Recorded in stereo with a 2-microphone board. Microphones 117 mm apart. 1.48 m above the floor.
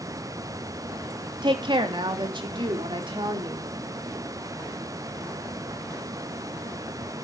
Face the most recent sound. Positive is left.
turn(degrees=-50)  # may be behind; listen again after turning